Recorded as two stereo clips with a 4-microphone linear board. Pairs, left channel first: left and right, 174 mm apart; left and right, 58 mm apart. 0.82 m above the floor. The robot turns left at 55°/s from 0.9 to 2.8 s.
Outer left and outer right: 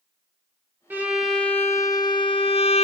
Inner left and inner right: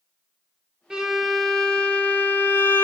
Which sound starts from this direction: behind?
A violin, at 0.9 s.